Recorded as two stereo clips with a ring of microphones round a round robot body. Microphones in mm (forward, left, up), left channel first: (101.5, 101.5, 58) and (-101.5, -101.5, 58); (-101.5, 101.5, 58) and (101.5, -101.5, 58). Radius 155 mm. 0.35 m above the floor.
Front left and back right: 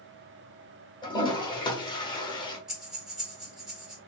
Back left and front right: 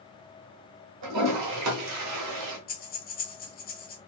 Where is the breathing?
140° left, 1.6 m.